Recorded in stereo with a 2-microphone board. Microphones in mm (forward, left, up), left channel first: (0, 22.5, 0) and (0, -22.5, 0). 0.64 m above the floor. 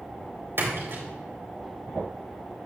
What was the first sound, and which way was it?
A splash, 70° right (ahead or behind).